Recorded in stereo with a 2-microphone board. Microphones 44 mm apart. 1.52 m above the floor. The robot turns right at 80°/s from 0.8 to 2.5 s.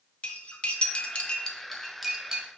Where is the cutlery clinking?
30° left (ahead or behind), 0.6 m; by 2.5 s 20° right (ahead or behind), 0.6 m.